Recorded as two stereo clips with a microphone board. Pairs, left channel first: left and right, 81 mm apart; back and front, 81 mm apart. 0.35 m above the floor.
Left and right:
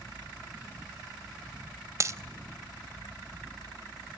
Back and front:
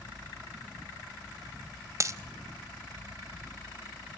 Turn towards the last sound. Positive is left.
turn(degrees=-45)